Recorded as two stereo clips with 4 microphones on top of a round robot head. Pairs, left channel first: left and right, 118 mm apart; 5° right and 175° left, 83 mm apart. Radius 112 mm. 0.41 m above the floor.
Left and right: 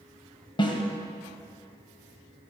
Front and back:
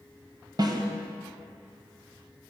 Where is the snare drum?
140° left, 2 m.